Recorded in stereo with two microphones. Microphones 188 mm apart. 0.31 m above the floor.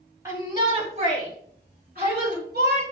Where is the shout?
15° right (ahead or behind), 2 m; by 2.8 s 60° right (ahead or behind), 5.5 m.